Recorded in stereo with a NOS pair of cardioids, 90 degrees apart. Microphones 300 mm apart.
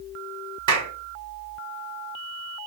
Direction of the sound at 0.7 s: 70° right.